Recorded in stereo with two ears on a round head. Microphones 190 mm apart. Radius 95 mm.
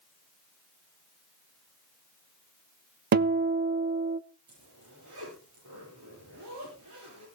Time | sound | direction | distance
3.1 | a guitar | 45° right (ahead or behind) | 0.6 m
4.5 | a zipper | 85° right | 9 m